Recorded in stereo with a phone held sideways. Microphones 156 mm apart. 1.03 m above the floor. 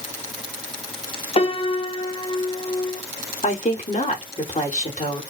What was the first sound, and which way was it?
A piano, 35° left (ahead or behind).